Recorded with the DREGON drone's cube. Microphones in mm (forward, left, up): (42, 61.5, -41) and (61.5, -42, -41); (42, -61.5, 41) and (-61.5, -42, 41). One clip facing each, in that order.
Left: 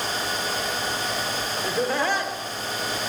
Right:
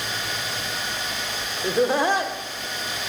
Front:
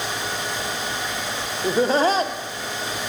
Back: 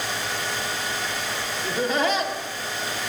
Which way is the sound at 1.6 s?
25° right.